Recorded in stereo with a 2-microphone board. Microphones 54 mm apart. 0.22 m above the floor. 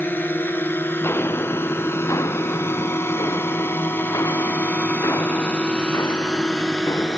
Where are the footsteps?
45° left (ahead or behind); by 7.2 s 75° left (ahead or behind).